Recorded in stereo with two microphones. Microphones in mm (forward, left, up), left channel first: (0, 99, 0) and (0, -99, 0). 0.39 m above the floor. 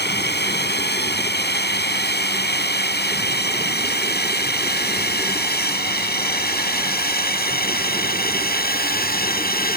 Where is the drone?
55° left (ahead or behind); by 9.8 s 50° left (ahead or behind).